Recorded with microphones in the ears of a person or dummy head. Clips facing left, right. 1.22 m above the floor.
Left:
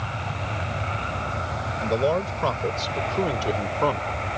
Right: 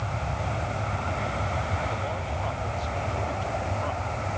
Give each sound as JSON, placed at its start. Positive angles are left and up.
{"t": 1.8, "sound": "a man speaking", "side_deg": 80}